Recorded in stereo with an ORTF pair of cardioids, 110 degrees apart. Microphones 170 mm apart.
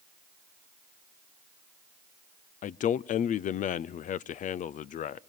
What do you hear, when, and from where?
2.6 s a man speaking: 50° left, 0.5 m